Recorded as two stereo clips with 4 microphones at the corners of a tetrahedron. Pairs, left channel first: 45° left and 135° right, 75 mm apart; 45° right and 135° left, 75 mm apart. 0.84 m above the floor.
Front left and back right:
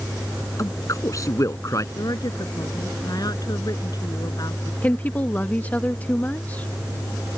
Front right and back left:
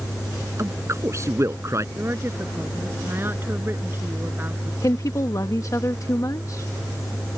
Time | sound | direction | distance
0.6 | a man speaking | 85° left | ?
1.9 | a woman speaking | 75° left | ?
4.8 | a woman speaking | 20° right | ?